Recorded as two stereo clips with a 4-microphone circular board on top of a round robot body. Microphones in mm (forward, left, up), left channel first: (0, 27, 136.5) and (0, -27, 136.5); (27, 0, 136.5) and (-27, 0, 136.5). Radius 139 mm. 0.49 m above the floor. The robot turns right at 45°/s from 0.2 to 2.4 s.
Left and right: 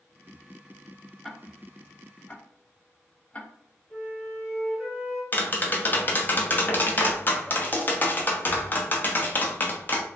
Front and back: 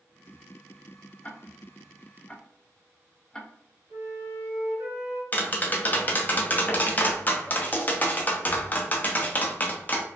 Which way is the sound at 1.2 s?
10° left.